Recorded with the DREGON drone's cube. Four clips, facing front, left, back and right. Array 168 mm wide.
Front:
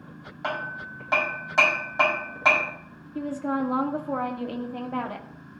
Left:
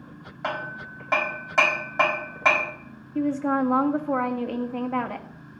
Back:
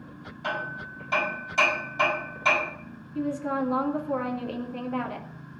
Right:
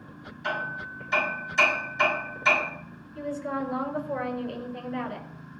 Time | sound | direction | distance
0.4 | hammering | 55° left | 6 m
3.1 | a woman speaking | 70° left | 2 m